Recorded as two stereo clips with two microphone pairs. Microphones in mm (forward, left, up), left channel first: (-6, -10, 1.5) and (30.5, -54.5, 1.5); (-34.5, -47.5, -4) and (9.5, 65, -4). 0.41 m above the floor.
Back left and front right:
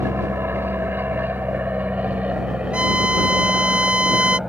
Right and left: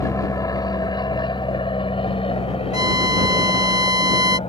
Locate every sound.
0.0 s an aircraft: 60° right; by 4.5 s 130° right
2.7 s a violin: 15° left